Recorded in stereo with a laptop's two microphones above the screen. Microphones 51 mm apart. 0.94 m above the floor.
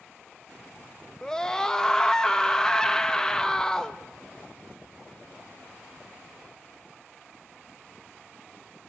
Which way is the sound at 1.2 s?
15° left (ahead or behind).